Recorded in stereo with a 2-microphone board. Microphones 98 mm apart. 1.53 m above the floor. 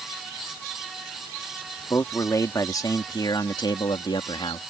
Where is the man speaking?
30° left (ahead or behind); by 4.6 s 60° left (ahead or behind).